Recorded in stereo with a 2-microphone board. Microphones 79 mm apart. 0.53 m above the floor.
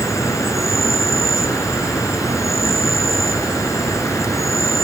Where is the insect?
40° left (ahead or behind), 1.5 m.